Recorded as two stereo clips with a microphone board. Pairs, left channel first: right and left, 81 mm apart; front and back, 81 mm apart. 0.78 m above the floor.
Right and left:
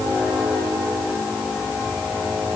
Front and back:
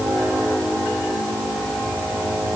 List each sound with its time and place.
Only background noise.